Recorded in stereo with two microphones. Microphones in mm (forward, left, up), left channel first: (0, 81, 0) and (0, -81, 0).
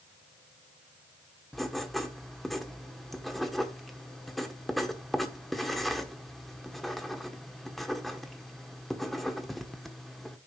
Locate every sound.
1.5 s writing: centre (ahead or behind), 1.0 m